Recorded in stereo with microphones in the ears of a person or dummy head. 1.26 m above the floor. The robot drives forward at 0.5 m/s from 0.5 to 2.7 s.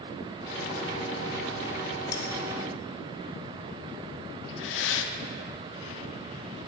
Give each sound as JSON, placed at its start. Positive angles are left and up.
{"t": 2.1, "sound": "cutlery clinking", "side_deg": 20, "distance_m": 0.6}
{"t": 4.5, "sound": "breathing", "side_deg": 70, "distance_m": 0.7}